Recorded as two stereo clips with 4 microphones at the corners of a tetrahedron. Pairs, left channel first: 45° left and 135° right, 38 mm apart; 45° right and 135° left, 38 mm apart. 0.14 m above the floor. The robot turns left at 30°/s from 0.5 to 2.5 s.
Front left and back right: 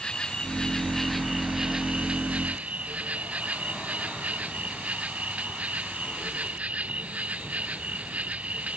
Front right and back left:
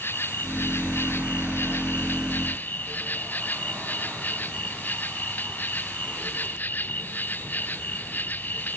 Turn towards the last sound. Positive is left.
turn(degrees=-85)